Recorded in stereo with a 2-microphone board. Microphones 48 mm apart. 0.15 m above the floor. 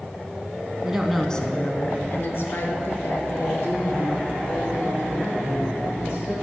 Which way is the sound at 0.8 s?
15° right (ahead or behind).